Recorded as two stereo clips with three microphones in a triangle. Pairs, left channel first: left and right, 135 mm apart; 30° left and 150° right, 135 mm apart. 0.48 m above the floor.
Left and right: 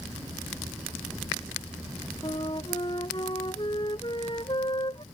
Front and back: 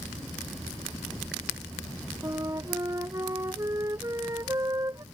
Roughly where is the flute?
Behind left.